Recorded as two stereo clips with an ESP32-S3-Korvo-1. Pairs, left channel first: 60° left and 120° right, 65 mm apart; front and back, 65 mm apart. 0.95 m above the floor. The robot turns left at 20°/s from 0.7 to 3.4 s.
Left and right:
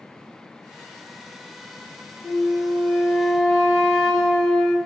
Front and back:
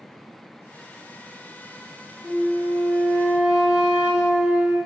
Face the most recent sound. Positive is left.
turn(degrees=145)